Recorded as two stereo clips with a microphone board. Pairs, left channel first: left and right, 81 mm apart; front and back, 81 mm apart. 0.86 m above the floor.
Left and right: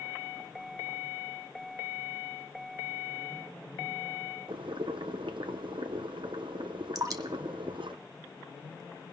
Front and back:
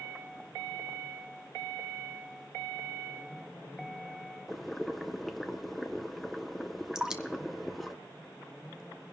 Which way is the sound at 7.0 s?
100° right.